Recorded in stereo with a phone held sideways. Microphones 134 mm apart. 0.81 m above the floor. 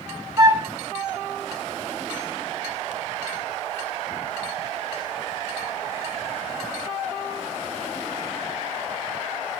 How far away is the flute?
About 1.4 m.